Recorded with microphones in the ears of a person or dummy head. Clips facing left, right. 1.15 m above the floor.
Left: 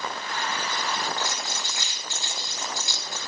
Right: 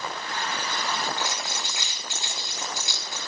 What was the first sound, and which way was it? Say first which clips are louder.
Crumpling: even; 15° right (ahead or behind).